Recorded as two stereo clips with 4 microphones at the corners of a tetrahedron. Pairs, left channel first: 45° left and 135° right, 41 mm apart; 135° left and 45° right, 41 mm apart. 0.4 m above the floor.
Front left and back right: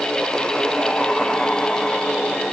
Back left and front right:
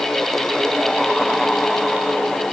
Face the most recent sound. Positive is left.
No sound to turn to.